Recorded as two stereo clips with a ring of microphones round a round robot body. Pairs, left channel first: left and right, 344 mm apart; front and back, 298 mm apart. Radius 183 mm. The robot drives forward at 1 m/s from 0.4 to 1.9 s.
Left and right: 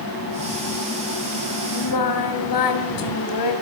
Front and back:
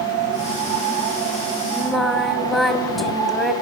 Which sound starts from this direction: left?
Singing, at 1.7 s.